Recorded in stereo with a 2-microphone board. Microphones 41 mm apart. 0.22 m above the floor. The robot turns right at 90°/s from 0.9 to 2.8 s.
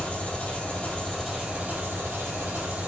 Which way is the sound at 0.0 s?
150° left.